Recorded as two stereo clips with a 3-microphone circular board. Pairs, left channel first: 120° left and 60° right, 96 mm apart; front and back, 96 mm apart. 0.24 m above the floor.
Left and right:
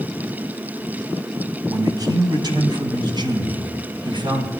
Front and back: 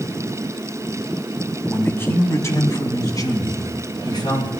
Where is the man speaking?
60° right, 1.9 m; by 4.5 s 35° right, 3 m.